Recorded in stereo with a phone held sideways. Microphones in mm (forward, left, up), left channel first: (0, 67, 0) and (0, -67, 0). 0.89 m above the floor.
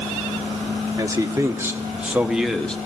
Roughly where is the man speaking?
Right.